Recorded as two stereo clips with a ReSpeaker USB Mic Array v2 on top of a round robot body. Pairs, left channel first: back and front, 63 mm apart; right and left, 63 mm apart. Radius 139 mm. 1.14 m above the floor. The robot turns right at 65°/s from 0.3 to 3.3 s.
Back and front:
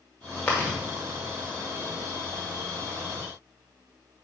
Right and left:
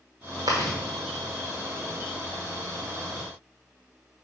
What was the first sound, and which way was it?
Chewing, 110° left.